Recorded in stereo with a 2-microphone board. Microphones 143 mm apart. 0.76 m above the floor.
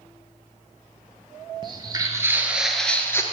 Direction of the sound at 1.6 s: 35° right (ahead or behind).